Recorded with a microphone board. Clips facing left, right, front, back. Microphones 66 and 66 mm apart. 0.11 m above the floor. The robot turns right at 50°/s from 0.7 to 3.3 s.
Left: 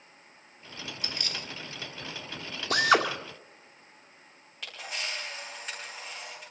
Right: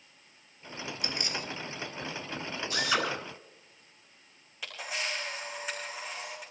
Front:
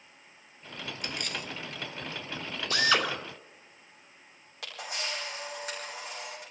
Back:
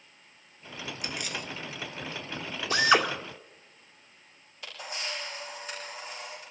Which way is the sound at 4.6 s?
5° right.